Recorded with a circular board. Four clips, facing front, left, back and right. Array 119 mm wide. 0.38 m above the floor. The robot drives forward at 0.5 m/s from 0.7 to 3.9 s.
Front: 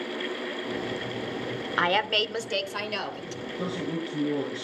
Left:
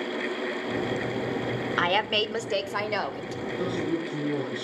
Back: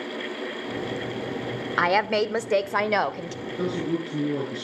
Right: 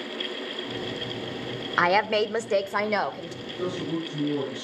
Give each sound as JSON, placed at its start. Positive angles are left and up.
{"t": 1.8, "sound": "a woman speaking", "azimuth_deg": -120, "distance_m": 0.8}
{"t": 3.5, "sound": "a man speaking", "azimuth_deg": 165, "distance_m": 6.5}